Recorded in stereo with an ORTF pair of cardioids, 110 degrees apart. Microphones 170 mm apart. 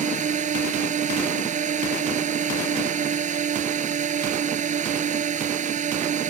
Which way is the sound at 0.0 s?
45° right.